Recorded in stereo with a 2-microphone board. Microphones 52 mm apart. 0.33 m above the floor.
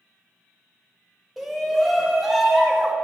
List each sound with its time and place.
1.4 s a shout: 5° right (ahead or behind), 1.0 m